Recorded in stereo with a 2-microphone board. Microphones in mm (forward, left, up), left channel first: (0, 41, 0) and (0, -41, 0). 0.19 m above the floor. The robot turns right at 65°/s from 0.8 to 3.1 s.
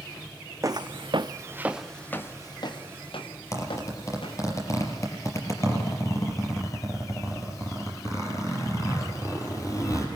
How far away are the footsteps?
About 0.6 m.